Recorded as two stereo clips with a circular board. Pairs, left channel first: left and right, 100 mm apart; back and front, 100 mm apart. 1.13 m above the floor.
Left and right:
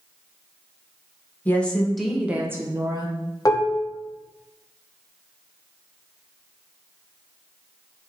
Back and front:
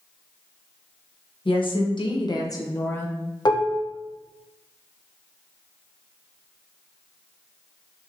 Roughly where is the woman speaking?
Behind.